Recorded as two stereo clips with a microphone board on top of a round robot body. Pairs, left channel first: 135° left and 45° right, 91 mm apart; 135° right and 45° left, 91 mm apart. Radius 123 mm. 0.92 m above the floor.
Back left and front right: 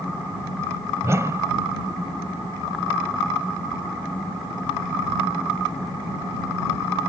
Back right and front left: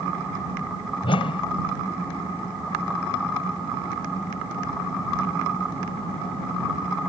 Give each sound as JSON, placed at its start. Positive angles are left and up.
{"t": 1.0, "sound": "a whoosh", "azimuth_deg": -105}